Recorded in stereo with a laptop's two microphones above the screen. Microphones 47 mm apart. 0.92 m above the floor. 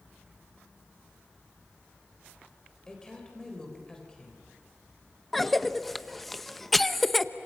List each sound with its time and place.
2.9 s a woman speaking: 15° left (ahead or behind), 3.5 m
5.3 s a cough: 5° left (ahead or behind), 1.0 m